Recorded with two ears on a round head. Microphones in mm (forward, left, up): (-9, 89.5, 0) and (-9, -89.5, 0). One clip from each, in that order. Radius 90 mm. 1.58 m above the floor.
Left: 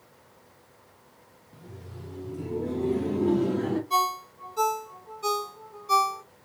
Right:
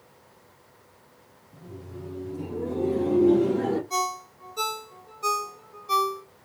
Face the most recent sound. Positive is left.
turn(degrees=0)  # may be behind; listen again after turning